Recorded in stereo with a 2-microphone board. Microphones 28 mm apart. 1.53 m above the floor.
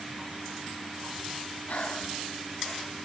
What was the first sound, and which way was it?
Breathing, 60° left (ahead or behind).